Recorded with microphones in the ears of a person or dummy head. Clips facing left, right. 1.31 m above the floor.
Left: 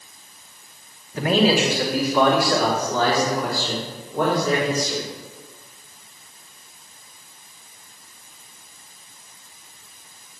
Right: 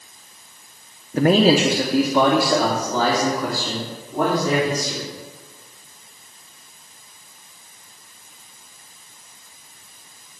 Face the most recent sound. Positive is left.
turn(degrees=-15)  # may be behind; listen again after turning